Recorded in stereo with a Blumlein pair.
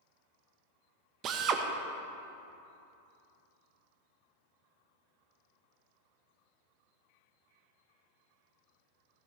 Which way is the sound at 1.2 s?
30° right.